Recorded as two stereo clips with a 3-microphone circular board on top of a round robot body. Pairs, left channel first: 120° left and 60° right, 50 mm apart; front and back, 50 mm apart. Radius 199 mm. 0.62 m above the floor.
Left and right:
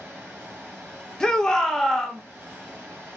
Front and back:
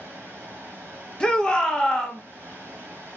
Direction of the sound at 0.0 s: 135° right.